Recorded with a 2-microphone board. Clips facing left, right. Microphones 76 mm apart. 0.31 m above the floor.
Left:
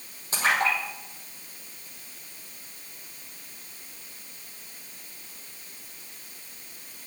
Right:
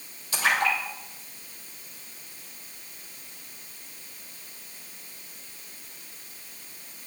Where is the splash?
35° left (ahead or behind), 5 m.